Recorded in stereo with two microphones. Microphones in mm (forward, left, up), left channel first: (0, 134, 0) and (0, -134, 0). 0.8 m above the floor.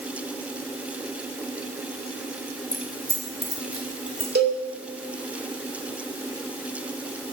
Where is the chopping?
I don't hear chopping.